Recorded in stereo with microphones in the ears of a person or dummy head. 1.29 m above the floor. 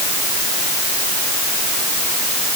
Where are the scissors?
I don't hear scissors.